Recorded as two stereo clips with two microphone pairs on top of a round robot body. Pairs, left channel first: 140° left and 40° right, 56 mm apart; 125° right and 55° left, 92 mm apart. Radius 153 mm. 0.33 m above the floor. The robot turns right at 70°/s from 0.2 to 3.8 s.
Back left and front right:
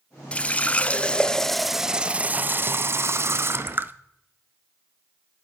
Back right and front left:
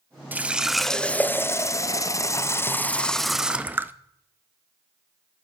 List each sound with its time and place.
0.3 s a running tap: 115° left, 0.6 m; by 3.9 s straight ahead, 0.6 m